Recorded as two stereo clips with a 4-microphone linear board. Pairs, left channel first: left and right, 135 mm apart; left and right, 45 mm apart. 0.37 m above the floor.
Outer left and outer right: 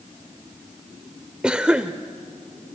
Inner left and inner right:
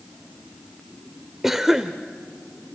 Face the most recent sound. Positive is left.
turn(degrees=-10)  # may be behind; listen again after turning